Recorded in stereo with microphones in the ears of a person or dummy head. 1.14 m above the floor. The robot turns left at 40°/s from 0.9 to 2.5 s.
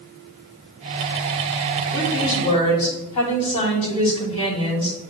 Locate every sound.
1.9 s a woman speaking: 60° left (ahead or behind), 3 m; by 5.0 s 35° left (ahead or behind), 3 m